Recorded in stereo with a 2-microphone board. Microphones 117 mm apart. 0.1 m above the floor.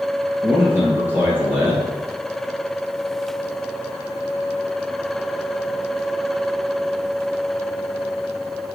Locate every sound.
0.4 s a man speaking: 20° right (ahead or behind), 1.7 m